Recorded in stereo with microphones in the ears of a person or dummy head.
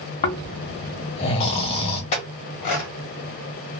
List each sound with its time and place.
0.2 s snoring: 35° left (ahead or behind), 0.8 m
2.1 s a clink: 40° left (ahead or behind), 1.1 m